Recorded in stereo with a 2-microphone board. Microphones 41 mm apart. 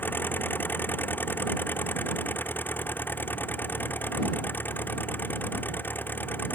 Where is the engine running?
55° left (ahead or behind).